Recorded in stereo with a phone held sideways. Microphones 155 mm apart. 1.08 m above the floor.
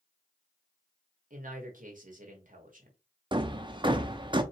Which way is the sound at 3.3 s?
30° right (ahead or behind).